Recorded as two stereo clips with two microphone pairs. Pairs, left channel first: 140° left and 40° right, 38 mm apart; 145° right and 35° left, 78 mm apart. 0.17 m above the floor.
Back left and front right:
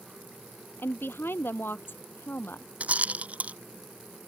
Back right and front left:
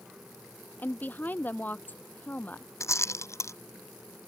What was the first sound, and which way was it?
A woman speaking, 150° left.